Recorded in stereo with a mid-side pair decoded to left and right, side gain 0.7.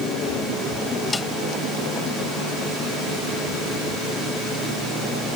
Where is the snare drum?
15° left.